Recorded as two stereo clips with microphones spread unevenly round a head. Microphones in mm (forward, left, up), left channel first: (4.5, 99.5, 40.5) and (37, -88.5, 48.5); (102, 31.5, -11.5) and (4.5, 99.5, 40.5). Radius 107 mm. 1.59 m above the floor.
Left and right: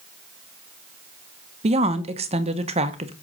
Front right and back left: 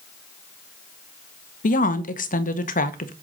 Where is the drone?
I don't hear a drone.